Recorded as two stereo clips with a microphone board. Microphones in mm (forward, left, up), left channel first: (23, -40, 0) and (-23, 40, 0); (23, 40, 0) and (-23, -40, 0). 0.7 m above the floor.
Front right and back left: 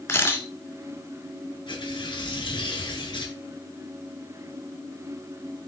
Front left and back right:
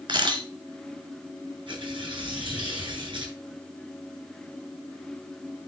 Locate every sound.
0.1 s a camera shutter: 115° right, 1.6 m
1.7 s tearing paper: 90° right, 5 m